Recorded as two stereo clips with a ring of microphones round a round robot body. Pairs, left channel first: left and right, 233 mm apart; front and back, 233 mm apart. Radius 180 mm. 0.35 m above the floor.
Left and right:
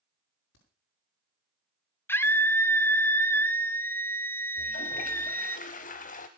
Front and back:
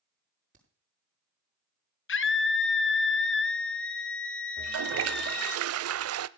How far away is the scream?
About 1.8 m.